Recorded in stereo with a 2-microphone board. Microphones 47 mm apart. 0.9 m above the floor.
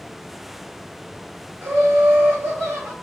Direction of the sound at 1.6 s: 65° right (ahead or behind).